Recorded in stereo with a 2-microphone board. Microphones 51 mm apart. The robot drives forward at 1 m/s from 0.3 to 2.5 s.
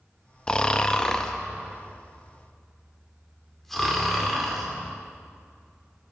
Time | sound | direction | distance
0.5 | snoring | 20° left (ahead or behind) | 0.6 m